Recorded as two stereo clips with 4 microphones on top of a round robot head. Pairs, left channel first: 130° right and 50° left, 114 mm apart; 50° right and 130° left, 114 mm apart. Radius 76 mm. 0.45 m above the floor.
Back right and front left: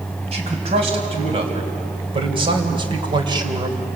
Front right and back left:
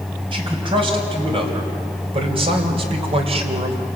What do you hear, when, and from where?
0.3 s a man speaking: 85° left, 4.5 m; by 3.9 s 105° left, 2.5 m